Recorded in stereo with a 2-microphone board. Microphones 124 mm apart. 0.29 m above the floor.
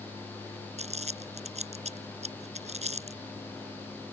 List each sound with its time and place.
0.8 s crumpling: 70° right (ahead or behind)